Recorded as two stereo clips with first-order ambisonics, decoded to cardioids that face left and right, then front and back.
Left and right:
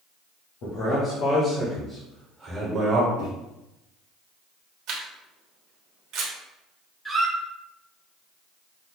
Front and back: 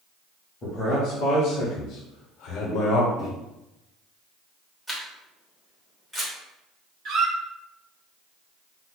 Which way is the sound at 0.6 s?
55° left.